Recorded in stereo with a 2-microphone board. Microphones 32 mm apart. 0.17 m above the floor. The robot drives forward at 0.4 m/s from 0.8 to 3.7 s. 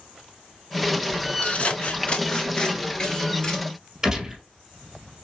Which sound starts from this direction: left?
Scissors, at 1.4 s.